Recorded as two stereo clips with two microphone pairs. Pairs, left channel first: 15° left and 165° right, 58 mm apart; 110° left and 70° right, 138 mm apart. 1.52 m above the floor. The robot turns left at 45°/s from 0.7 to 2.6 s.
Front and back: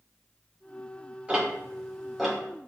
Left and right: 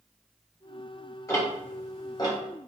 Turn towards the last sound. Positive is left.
turn(degrees=90)